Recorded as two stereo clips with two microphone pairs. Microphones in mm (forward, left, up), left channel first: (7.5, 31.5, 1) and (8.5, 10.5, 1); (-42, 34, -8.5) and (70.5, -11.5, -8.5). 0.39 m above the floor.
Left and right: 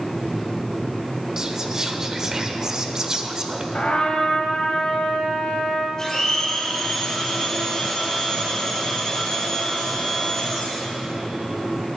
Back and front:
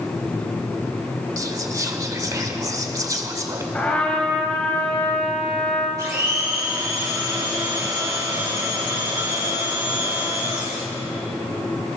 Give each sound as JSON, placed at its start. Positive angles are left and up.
{"t": 1.4, "sound": "whispering", "azimuth_deg": -45, "distance_m": 1.2}
{"t": 3.7, "sound": "a trumpet", "azimuth_deg": 85, "distance_m": 2.0}
{"t": 6.0, "sound": "a blender", "azimuth_deg": 35, "distance_m": 4.0}